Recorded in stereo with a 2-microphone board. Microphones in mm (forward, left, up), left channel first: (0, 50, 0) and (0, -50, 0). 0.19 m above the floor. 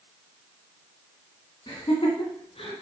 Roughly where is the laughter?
Left.